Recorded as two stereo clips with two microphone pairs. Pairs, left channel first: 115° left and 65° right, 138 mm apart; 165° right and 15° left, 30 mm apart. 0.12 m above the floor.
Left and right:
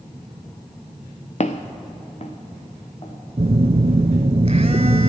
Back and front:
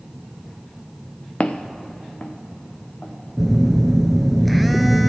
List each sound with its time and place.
1.4 s footsteps: 150° left, 0.8 m; by 3.1 s 160° left, 2.5 m
3.4 s a phone buzzing: 75° right, 0.5 m